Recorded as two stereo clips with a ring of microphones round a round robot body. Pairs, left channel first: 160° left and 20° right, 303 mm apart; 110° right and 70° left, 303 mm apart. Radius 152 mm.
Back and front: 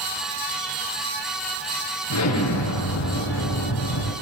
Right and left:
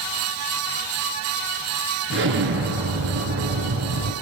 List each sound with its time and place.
2.1 s an explosion: 120° left, 6 m